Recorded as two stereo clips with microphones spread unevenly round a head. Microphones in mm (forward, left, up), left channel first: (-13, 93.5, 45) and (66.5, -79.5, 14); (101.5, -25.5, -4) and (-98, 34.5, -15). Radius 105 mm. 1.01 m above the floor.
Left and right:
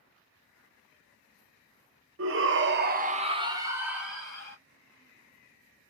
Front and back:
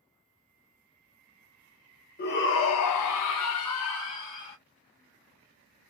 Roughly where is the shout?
Right.